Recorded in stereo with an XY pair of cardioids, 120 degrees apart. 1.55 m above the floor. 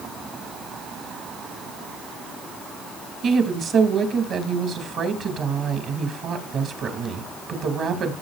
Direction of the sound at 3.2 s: 55° right.